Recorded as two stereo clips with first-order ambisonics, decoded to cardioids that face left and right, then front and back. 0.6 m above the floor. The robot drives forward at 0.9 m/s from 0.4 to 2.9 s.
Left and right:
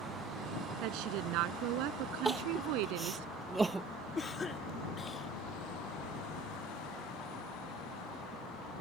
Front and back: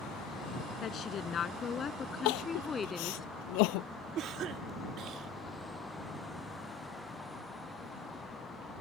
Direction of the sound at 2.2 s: 10° right.